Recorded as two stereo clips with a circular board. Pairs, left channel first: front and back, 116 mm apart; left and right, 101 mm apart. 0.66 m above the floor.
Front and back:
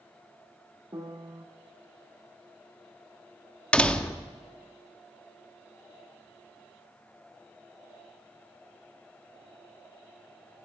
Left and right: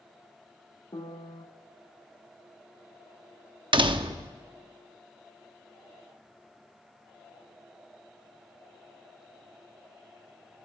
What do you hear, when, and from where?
0.9 s a piano: 125° left, 1.1 m
3.7 s a door slam: 75° right, 0.8 m